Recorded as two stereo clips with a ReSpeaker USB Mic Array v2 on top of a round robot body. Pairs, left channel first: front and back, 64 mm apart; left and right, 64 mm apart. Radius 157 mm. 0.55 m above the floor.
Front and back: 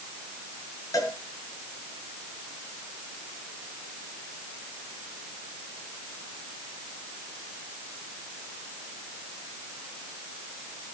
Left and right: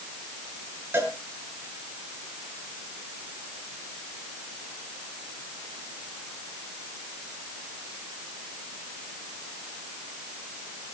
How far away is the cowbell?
About 7 m.